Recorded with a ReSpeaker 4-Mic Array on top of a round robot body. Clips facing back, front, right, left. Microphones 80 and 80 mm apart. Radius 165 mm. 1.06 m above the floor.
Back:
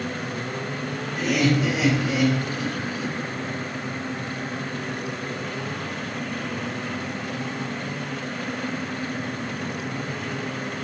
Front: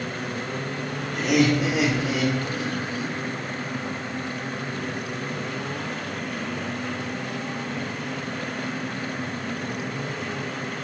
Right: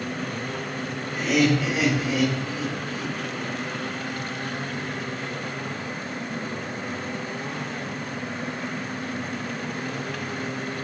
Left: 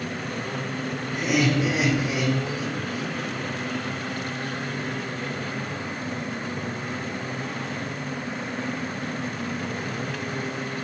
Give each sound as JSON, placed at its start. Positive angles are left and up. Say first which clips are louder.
{"t": 1.1, "sound": "laughter", "louder": "front 2 dB, right 2 dB", "azimuth_deg": 25, "distance_m": 3.0}